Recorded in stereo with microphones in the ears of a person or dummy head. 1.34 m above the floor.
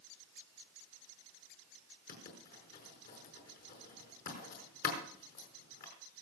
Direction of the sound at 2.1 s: 50° left (ahead or behind).